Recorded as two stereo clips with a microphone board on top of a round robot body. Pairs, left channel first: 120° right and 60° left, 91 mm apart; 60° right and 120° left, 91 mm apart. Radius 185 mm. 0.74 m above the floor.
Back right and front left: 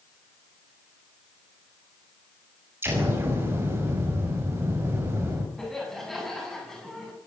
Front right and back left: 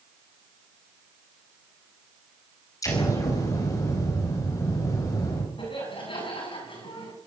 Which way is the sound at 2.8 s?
5° right.